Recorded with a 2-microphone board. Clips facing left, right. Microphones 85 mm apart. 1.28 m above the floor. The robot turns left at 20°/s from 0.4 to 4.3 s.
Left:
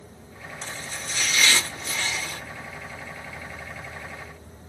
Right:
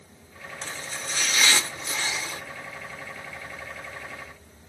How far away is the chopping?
About 1.4 m.